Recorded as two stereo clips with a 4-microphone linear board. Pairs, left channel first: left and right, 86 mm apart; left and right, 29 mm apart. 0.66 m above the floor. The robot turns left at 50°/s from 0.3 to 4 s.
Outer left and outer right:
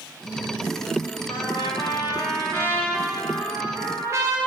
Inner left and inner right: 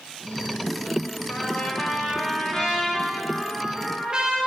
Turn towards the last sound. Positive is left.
turn(degrees=-40)